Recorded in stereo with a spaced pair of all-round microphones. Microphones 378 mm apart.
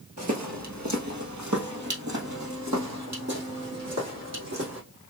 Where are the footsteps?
45° right (ahead or behind), 1.5 m.